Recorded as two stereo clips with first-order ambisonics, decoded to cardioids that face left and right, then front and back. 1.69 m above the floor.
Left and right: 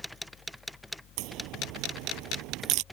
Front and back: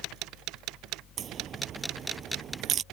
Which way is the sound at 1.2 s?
120° right.